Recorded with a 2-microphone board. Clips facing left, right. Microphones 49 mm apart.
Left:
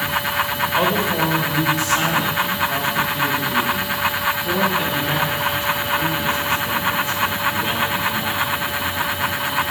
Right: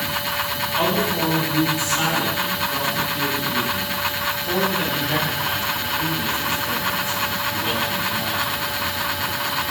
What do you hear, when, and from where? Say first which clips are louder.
0.8 s a man speaking: left 2 dB; 60° left (ahead or behind), 5.5 m; by 8.4 s 40° left (ahead or behind), 16 m